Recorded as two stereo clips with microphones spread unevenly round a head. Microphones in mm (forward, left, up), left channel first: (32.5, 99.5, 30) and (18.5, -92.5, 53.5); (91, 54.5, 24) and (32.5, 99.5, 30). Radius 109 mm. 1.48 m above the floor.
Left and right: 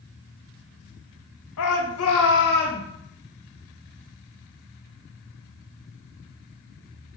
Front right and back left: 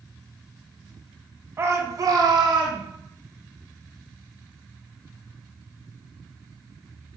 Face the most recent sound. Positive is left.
turn(degrees=150)